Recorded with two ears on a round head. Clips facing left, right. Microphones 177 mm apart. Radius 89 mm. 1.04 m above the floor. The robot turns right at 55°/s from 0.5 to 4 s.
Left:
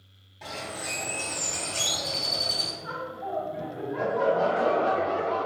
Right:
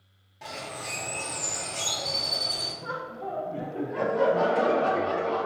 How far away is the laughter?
About 0.6 m.